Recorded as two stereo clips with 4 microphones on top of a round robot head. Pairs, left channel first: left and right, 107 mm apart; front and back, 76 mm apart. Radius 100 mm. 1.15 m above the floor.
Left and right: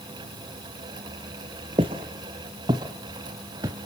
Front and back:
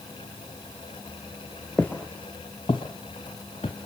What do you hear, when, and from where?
1.8 s footsteps: 80° right, 1.3 m; by 3.8 s 35° right, 1.8 m